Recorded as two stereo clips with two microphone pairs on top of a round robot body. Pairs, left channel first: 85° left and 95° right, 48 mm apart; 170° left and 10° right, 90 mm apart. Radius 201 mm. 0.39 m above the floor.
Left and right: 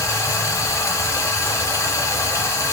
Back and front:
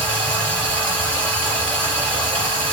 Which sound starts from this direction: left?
Running water, at 0.0 s.